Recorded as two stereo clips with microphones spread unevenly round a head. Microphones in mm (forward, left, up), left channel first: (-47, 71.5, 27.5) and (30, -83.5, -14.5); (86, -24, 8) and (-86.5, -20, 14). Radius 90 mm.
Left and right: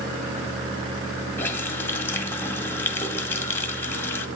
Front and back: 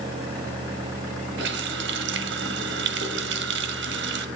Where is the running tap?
175° right, 1.3 m.